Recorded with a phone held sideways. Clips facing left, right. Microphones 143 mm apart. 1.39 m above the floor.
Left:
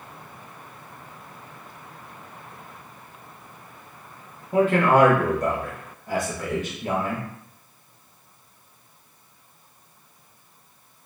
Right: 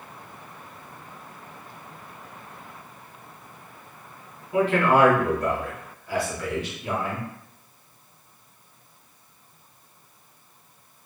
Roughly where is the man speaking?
Left.